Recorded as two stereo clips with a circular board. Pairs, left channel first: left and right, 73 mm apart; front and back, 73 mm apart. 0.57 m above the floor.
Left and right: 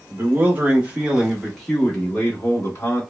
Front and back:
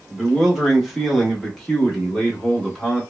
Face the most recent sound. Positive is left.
turn(degrees=80)